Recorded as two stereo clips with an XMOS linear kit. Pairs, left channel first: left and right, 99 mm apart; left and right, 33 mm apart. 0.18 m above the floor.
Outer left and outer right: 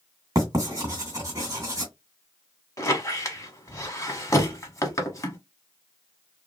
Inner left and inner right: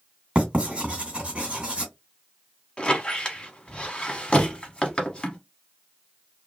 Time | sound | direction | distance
0.3 | writing | 35° right (ahead or behind) | 2.0 m
2.8 | a squeak | 30° left (ahead or behind) | 0.9 m